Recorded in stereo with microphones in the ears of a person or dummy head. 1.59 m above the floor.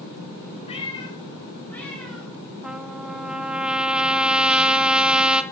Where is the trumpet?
5° right (ahead or behind), 0.7 m.